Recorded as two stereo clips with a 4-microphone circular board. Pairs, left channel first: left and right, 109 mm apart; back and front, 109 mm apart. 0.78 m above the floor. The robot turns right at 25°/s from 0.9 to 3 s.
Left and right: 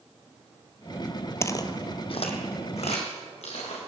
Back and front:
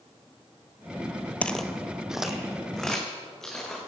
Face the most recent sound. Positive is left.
turn(degrees=95)